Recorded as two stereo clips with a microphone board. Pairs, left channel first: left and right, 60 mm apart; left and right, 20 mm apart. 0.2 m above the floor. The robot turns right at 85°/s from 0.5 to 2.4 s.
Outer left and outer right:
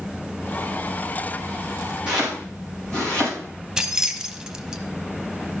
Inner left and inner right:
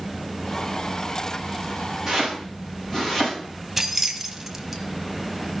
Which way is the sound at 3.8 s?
15° right (ahead or behind).